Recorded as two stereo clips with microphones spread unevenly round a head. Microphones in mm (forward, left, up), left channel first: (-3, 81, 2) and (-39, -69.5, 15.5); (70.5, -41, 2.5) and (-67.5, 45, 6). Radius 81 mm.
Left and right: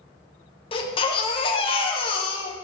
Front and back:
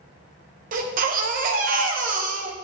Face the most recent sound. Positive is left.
turn(degrees=130)